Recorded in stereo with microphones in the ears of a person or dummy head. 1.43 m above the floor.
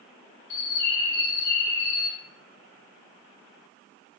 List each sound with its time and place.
0.5 s a bird: 55° left (ahead or behind), 1.0 m